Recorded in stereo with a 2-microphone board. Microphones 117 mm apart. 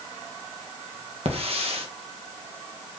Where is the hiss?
55° right (ahead or behind), 1.6 m.